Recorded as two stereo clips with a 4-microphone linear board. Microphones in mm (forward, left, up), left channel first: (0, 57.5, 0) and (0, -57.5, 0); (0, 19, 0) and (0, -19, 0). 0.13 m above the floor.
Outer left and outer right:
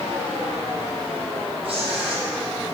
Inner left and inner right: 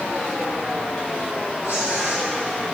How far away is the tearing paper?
About 3 m.